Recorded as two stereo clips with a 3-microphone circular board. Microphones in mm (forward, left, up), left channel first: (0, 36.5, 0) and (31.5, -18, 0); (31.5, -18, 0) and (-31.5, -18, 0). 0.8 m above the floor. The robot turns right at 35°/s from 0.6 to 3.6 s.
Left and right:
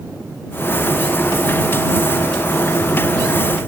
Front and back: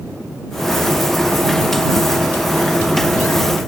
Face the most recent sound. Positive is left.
No sound to turn to.